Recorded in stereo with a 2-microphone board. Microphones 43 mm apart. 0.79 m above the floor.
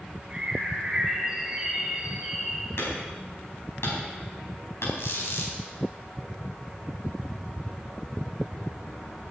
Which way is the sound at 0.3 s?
10° right (ahead or behind).